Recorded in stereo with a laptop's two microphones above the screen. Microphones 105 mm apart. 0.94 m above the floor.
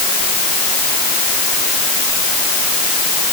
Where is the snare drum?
No snare drum in this recording.